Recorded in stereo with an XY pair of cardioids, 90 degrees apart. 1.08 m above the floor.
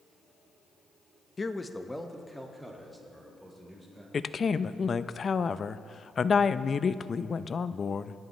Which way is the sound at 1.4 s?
30° left.